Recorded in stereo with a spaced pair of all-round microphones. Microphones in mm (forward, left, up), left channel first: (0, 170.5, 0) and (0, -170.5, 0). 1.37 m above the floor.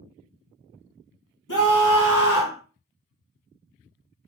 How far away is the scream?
About 1.1 m.